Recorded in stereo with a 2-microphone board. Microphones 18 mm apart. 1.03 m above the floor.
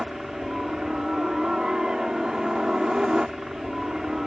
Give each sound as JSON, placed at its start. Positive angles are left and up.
{"t": 0.0, "sound": "a helicopter", "side_deg": -55}